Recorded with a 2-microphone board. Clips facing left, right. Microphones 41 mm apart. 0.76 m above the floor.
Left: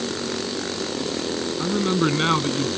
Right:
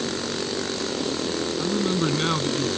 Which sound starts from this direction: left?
A man speaking, at 1.6 s.